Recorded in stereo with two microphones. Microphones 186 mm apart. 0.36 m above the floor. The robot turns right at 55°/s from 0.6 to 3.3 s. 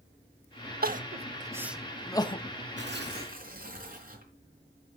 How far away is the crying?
About 0.6 m.